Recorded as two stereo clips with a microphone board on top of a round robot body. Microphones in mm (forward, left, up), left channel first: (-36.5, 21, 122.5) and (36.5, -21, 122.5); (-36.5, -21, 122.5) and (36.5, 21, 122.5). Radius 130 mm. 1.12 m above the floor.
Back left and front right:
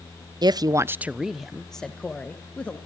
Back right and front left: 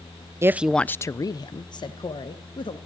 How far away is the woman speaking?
About 0.6 m.